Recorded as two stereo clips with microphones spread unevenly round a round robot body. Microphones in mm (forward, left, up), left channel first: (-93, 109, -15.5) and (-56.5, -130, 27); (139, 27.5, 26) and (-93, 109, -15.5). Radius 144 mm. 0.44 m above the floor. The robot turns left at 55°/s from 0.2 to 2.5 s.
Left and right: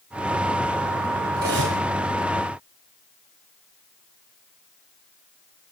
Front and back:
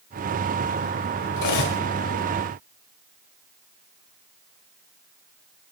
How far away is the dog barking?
No dog barking in this recording.